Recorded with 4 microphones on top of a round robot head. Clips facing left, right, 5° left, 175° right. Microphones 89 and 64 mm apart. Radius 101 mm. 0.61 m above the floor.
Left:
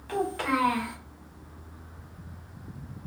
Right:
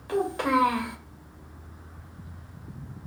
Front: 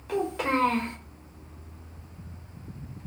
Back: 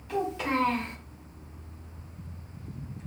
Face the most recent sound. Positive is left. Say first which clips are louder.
# right 3 dB, front 2 dB
turn(degrees=-20)